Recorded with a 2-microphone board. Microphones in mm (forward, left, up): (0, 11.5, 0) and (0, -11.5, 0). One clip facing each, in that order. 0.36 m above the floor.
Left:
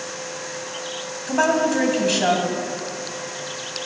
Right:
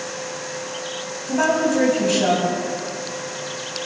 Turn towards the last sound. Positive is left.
turn(degrees=25)  # may be behind; listen again after turning